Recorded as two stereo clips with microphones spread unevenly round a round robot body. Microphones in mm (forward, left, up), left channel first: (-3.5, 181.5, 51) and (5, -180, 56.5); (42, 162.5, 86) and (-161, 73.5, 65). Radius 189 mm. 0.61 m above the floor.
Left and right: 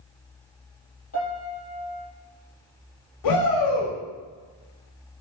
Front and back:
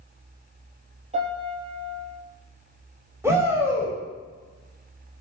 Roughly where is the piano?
Behind left.